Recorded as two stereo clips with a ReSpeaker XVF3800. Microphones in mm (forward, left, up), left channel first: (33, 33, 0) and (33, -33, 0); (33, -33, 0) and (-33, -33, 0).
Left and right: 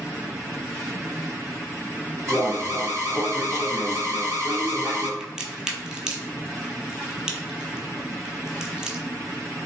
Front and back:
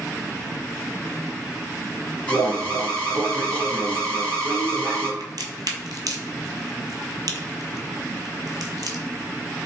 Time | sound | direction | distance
2.3 | an alarm | 65° right | 1.8 m
5.2 | a crack | 165° right | 0.7 m